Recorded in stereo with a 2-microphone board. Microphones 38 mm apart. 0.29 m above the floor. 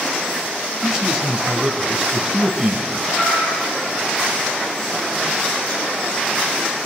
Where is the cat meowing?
85° left, 6 m.